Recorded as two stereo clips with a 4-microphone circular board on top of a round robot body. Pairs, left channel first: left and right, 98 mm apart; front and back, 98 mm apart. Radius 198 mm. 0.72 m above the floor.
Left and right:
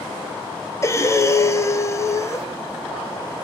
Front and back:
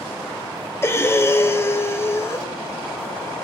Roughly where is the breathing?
Ahead left.